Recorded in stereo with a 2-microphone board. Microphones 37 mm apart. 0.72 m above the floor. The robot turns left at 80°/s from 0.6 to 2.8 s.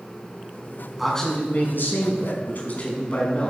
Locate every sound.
1.0 s a man speaking: straight behind, 5.5 m; by 3.5 s 35° left, 5.5 m